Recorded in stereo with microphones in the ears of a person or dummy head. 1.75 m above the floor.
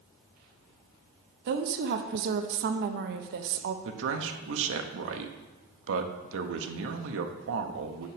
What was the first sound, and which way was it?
A woman speaking, 60° right (ahead or behind).